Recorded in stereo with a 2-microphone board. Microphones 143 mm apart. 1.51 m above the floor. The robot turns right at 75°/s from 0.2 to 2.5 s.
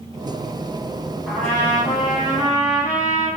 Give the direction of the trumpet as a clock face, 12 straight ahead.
12 o'clock.